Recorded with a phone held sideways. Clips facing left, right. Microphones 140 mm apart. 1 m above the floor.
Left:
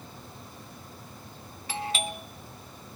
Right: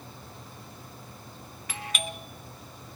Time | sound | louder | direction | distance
1.7 | a doorbell | left 4 dB | 30° left (ahead or behind) | 0.7 m